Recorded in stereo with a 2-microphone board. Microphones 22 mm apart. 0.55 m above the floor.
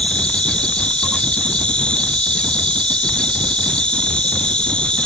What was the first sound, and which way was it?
An insect, 60° left (ahead or behind).